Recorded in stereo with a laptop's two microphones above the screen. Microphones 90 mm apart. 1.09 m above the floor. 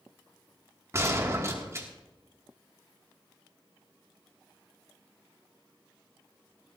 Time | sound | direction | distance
0.9 | a gunshot | 30° right (ahead or behind) | 2 m